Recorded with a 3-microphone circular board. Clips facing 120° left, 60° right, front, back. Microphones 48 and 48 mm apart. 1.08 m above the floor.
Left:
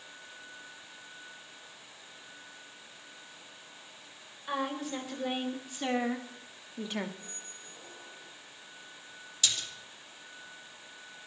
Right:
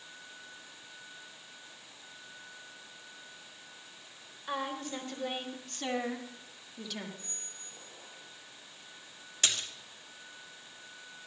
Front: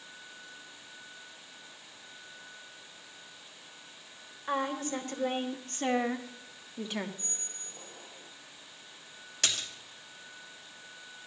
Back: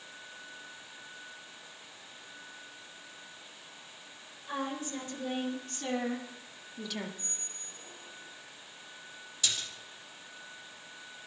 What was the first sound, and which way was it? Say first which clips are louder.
A woman speaking: left 2 dB, front 4 dB; 30° left.